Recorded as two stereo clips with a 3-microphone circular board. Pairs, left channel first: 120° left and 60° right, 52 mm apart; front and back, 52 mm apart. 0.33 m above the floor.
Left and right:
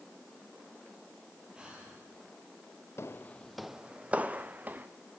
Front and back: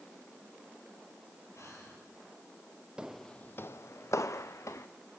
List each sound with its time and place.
1.5 s breathing: 15° left, 6.5 m
3.0 s footsteps: 115° left, 0.5 m; by 4.9 s 5° right, 1.7 m